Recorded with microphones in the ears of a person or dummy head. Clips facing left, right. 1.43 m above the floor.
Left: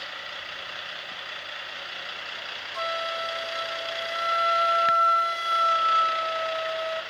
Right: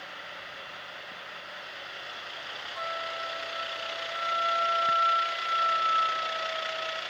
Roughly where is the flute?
Left.